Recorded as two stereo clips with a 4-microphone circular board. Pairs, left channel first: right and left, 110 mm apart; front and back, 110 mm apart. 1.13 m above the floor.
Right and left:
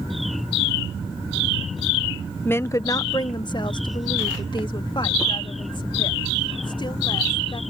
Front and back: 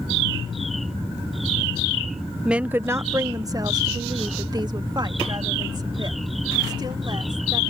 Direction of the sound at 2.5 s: 110° right.